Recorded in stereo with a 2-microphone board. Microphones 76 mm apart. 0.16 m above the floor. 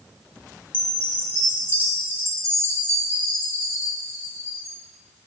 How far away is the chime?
About 2 m.